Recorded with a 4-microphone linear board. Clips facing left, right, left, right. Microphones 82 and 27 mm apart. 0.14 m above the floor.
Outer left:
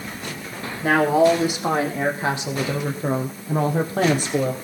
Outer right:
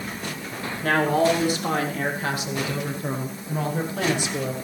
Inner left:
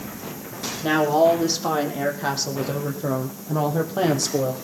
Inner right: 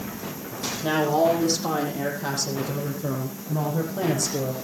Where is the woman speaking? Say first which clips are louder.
Outer left 4 dB, inner left 3 dB; 15° left (ahead or behind), 5 m; by 4.5 s 45° left (ahead or behind), 4.5 m.